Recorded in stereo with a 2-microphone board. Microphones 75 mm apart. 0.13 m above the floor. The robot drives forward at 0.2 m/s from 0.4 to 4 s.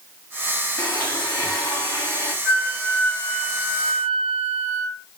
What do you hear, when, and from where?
0.8 s a blender: 50° left (ahead or behind), 3 m; by 2.4 s 45° left (ahead or behind), 3.5 m
2.5 s a flute: 35° left (ahead or behind), 4 m